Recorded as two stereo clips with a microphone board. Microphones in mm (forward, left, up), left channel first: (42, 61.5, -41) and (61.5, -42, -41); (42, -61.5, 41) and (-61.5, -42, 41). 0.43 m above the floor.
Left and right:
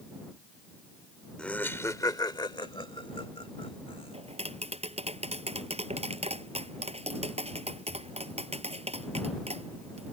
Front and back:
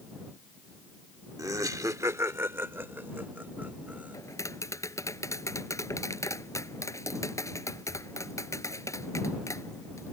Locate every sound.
1.4 s laughter: 170° left; by 4.2 s 95° left
4.1 s tapping: 70° right